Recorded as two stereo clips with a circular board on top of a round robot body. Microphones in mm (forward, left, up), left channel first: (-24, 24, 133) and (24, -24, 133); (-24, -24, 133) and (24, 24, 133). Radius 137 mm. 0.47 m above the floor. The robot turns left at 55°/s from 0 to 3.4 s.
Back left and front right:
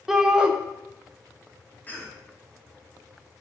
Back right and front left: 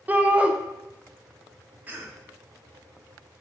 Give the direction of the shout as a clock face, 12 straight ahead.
11 o'clock.